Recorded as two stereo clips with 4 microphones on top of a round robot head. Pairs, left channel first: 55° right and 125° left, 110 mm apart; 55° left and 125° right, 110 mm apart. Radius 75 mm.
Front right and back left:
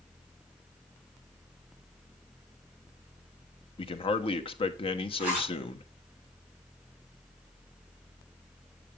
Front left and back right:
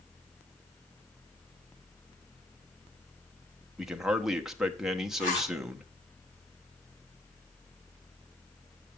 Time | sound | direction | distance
3.8 | a man speaking | 35° right | 1.2 m
5.2 | a zipper | 45° left | 5 m